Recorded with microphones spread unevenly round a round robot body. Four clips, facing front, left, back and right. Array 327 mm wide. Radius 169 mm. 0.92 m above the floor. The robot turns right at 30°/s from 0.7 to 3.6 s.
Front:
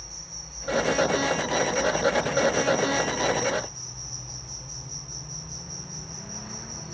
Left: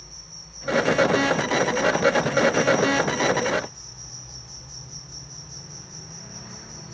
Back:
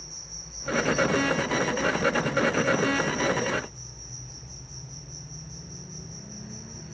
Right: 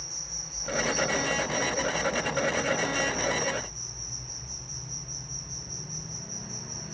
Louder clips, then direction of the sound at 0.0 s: Right 3 dB, front 2 dB; 75° right.